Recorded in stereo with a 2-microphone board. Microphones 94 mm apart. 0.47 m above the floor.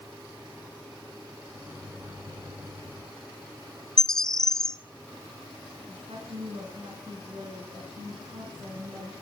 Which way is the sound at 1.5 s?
25° right (ahead or behind).